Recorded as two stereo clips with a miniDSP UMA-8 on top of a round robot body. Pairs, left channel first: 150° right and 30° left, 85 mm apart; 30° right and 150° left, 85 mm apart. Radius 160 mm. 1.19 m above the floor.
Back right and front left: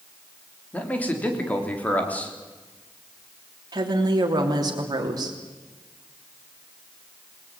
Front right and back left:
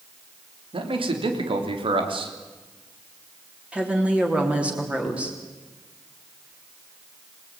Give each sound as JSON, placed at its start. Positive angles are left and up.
{"t": 0.7, "sound": "a man speaking", "azimuth_deg": 135, "distance_m": 3.5}
{"t": 3.7, "sound": "a woman speaking", "azimuth_deg": 70, "distance_m": 3.0}